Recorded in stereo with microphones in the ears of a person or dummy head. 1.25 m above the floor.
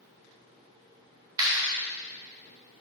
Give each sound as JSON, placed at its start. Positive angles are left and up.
{"t": 1.4, "sound": "a clap", "side_deg": -25, "distance_m": 3.5}